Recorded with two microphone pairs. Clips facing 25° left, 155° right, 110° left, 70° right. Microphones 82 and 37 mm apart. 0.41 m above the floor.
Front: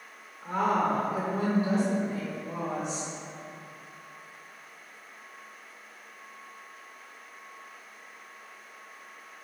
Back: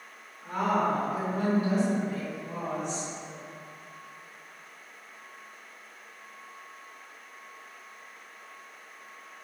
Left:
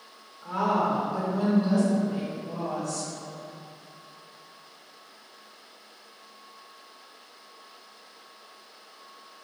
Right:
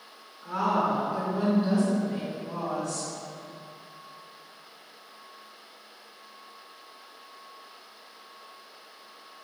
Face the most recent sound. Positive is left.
turn(degrees=-45)